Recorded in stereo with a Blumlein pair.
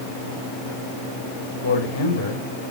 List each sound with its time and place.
1.6 s a man speaking: 70° left, 5.5 m